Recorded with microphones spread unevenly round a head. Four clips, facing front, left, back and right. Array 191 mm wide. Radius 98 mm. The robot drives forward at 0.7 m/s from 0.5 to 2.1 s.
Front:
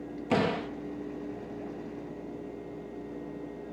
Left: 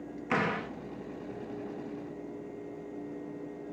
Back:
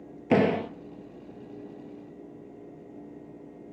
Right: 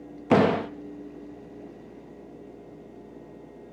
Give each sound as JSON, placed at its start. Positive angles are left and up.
{"t": 0.3, "sound": "a door slam", "azimuth_deg": -120, "distance_m": 0.5}